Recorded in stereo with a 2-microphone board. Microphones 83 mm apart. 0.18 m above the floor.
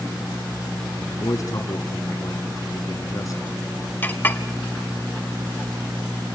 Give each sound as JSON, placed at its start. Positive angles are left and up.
{"t": 1.1, "sound": "a man speaking", "side_deg": 45, "distance_m": 2.0}
{"t": 4.0, "sound": "a clink", "side_deg": 25, "distance_m": 0.8}